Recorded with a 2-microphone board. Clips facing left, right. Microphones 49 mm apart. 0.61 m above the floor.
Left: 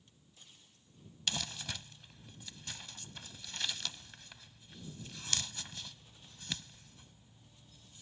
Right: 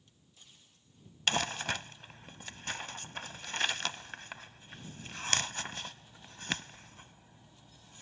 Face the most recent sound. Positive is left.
turn(degrees=-55)  # may be behind; listen again after turning